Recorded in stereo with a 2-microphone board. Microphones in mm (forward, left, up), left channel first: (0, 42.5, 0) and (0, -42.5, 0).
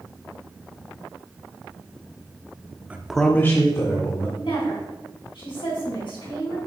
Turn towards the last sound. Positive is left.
turn(degrees=70)  # may be behind; listen again after turning